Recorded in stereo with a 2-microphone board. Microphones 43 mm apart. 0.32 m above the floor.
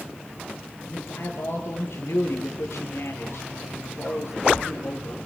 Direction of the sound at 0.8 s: 75° left (ahead or behind).